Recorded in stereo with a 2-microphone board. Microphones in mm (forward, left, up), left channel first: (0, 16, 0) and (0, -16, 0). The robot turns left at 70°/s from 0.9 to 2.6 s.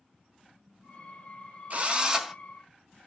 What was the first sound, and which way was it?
A drill, 130° right.